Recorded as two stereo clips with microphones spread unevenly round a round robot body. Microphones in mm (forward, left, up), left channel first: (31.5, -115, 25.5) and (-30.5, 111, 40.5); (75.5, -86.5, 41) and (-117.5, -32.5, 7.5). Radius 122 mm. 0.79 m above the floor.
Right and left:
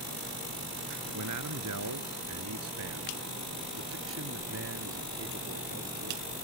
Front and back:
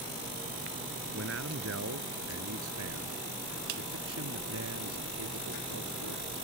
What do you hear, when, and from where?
1.1 s a man speaking: 125° left; by 6.3 s 150° left